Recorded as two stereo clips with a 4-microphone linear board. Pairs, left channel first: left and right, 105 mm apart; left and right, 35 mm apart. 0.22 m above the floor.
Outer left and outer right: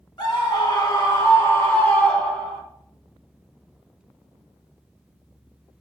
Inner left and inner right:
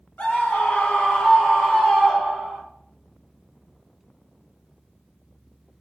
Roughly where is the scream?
Left.